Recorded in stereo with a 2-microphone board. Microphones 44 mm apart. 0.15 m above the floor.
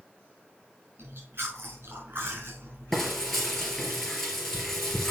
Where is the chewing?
65° right (ahead or behind), 5.5 m.